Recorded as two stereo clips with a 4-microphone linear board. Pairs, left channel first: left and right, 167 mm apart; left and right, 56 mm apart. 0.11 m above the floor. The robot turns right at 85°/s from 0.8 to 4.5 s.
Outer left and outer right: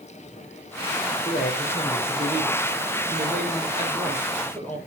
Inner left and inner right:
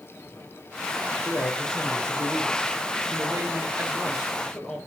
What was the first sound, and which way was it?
A man speaking, 95° left.